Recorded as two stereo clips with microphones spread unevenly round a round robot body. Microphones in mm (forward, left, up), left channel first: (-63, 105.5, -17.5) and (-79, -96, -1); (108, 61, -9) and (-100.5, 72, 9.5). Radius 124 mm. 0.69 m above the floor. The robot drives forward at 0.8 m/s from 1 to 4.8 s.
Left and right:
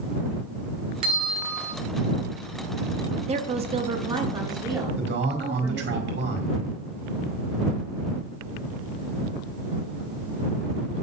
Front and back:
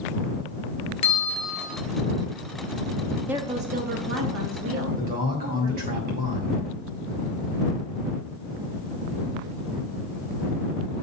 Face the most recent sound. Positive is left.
turn(degrees=-125)